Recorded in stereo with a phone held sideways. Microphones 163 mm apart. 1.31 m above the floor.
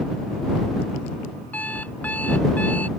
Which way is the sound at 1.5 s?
10° left (ahead or behind).